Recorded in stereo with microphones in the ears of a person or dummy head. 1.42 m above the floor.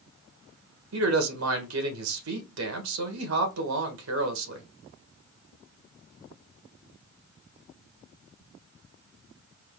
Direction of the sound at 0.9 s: 75° right (ahead or behind).